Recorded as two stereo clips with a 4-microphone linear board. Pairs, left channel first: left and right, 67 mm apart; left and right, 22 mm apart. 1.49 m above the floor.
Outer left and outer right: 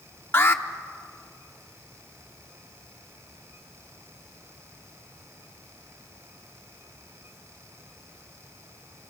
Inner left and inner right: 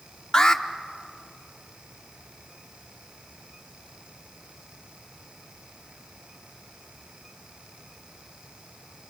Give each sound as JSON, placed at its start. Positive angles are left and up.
{"t": 0.3, "sound": "an alarm", "side_deg": 35, "distance_m": 0.9}